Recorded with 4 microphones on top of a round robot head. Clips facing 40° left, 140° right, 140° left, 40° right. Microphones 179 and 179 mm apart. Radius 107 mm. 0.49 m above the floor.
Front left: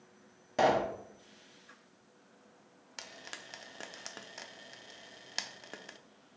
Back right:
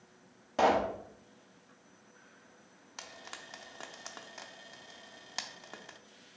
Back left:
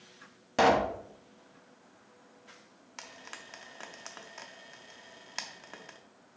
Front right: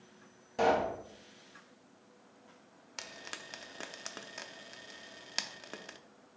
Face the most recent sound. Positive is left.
turn(degrees=-15)